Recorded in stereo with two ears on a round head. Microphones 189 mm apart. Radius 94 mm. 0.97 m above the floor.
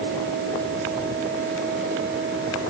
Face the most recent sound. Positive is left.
No sound to turn to.